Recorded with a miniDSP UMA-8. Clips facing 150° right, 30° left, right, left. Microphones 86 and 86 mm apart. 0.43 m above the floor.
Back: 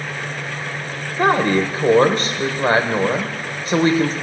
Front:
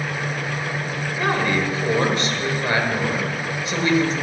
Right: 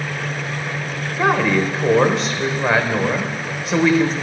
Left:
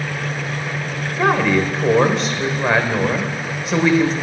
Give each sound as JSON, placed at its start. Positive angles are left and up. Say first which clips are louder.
{"t": 1.2, "sound": "a woman speaking", "louder": "back 6 dB, left 1 dB", "azimuth_deg": 180, "distance_m": 1.4}